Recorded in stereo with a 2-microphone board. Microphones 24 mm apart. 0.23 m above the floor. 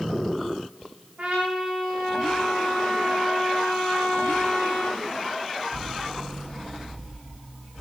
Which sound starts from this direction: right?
A trumpet, at 1.2 s.